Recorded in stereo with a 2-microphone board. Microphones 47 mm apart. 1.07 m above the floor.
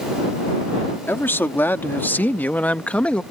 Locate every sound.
1.1 s a man speaking: 50° left (ahead or behind); by 3.2 s 20° left (ahead or behind)